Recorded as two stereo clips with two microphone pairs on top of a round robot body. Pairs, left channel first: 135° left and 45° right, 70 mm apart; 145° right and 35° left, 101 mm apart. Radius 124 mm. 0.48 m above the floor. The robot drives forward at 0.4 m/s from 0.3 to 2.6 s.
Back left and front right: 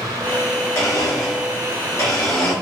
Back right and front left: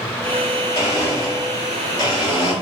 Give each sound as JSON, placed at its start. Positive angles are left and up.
{"t": 0.8, "sound": "a blender", "azimuth_deg": 180, "distance_m": 1.4}